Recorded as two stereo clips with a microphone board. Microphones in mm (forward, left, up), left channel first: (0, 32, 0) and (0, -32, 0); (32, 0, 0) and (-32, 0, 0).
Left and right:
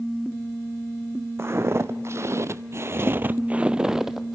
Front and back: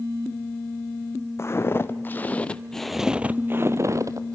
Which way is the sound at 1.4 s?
45° right.